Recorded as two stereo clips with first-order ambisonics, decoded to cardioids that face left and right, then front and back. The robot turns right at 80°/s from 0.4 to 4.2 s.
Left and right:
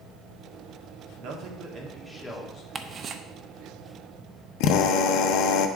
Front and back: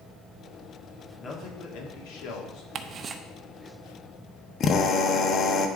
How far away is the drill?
About 0.7 m.